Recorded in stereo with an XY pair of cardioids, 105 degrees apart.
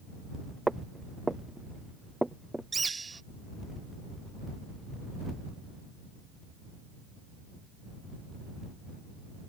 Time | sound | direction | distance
0.7 | footsteps | 15° right | ?
2.7 | a bird | 25° right | ?